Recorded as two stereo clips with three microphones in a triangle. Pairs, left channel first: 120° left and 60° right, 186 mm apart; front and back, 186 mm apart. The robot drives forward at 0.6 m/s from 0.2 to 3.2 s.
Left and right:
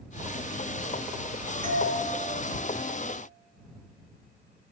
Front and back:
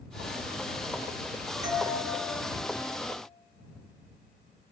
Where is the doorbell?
160° left, 1.8 m.